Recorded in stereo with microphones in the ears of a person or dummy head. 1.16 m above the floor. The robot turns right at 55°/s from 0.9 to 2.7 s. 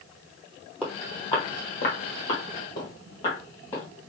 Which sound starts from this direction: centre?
Footsteps, at 0.8 s.